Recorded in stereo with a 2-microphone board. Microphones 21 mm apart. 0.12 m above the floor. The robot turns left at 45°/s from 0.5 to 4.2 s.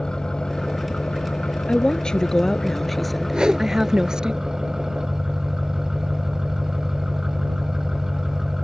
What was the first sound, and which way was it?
An engine running, 150° left.